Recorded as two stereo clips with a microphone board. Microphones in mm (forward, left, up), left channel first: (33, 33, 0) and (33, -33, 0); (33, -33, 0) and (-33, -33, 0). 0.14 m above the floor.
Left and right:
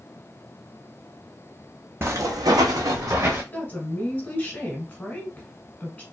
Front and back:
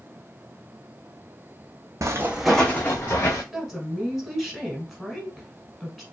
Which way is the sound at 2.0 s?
140° right.